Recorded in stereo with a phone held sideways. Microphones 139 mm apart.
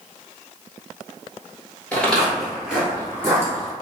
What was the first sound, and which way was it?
Footsteps, 10° left (ahead or behind).